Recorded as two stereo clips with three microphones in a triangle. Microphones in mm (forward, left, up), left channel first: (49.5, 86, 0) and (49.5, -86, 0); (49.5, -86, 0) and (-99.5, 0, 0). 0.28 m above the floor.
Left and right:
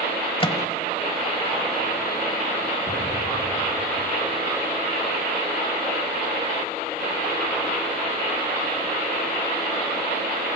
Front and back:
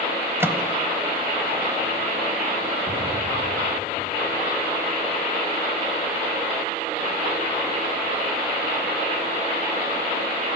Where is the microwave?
90° left, 1.1 m.